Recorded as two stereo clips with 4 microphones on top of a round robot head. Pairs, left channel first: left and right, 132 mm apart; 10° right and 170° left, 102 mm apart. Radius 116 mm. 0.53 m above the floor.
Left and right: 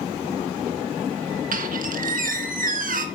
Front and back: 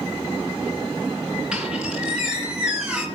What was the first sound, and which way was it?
A squeak, 110° right.